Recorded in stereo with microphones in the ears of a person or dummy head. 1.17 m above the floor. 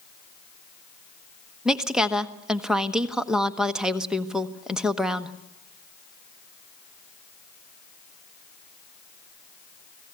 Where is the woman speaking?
Centre (ahead or behind), 1.1 m.